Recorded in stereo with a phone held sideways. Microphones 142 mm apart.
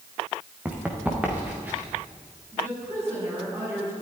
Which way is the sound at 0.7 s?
10° right (ahead or behind).